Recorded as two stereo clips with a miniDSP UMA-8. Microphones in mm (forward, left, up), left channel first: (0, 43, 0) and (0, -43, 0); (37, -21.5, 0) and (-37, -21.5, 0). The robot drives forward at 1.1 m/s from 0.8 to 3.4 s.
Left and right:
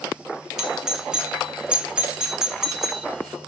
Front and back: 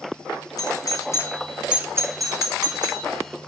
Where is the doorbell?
10° right, 1.1 m; by 3.1 s 175° right, 1.8 m.